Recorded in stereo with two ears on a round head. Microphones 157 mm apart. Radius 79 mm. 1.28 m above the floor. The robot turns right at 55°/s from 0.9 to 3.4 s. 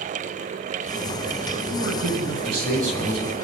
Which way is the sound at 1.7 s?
110° right.